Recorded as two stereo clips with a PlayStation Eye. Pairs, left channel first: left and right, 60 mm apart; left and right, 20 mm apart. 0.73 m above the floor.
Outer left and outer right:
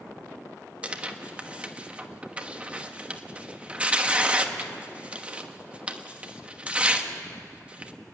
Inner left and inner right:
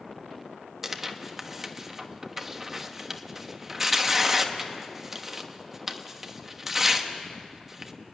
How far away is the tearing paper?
About 1.2 m.